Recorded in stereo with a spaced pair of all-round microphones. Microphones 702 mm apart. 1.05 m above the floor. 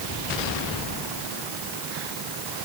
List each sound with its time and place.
Only background noise.